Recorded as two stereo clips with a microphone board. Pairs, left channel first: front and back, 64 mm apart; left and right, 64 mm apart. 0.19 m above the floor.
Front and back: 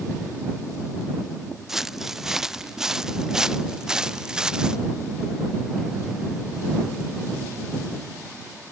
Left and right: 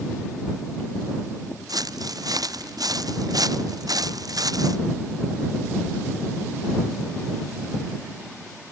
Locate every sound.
1.7 s footsteps: 95° right; by 4.8 s 100° right